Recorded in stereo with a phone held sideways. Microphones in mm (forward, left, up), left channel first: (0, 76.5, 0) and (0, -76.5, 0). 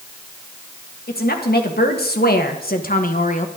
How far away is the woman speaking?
About 1.9 m.